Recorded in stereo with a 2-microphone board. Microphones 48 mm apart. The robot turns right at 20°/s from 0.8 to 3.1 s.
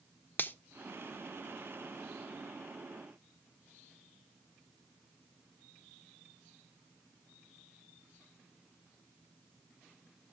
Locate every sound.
0.4 s a finger snap: 40° left (ahead or behind), 0.5 m